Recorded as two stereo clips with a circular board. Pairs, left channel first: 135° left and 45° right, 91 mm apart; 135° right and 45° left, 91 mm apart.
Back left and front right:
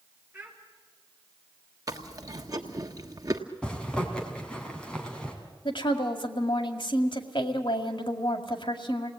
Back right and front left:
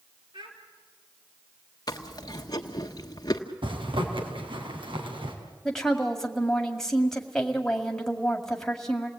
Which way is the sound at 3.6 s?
55° left.